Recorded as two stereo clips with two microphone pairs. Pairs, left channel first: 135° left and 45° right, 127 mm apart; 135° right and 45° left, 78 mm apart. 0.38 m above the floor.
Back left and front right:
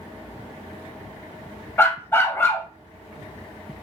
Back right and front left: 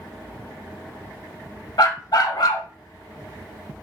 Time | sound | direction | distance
1.8 | a dog barking | 155° right | 0.6 m